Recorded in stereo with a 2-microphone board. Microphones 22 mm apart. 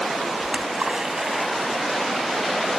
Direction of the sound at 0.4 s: 35° right (ahead or behind).